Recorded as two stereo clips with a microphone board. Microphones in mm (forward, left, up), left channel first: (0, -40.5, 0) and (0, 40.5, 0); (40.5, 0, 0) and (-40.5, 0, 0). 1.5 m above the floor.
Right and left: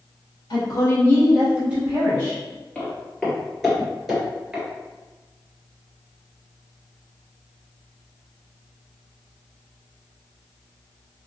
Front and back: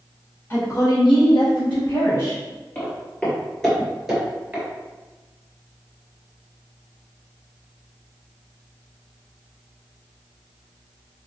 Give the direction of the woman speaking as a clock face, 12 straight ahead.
2 o'clock.